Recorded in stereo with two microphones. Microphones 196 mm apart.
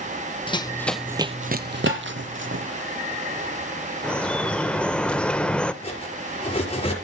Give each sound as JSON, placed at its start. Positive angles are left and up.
{"t": 0.5, "sound": "running footsteps", "side_deg": 25, "distance_m": 0.7}
{"t": 1.9, "sound": "tapping", "side_deg": -75, "distance_m": 4.5}
{"t": 4.0, "sound": "dripping", "side_deg": 5, "distance_m": 0.8}
{"t": 5.8, "sound": "cutlery clinking", "side_deg": 30, "distance_m": 5.5}